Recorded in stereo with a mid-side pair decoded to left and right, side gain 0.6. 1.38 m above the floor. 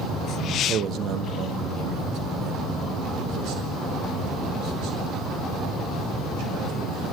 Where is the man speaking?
50° right, 1.3 m; by 7.1 s 65° right, 10.5 m.